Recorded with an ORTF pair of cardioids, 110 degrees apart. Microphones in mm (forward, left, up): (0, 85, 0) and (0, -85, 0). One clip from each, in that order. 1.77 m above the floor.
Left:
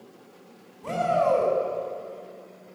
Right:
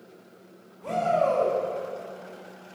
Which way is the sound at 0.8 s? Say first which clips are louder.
Left 1 dB; 15° left.